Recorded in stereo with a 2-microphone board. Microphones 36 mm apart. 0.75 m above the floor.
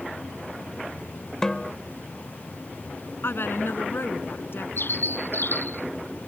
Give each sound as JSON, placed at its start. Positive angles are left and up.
{"t": 1.4, "sound": "a snare drum", "side_deg": 15}
{"t": 3.2, "sound": "a woman speaking", "side_deg": 80}
{"t": 4.8, "sound": "a bird", "side_deg": 75}